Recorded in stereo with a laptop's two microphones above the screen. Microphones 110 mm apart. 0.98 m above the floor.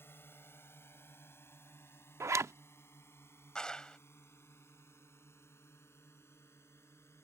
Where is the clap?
5° left (ahead or behind).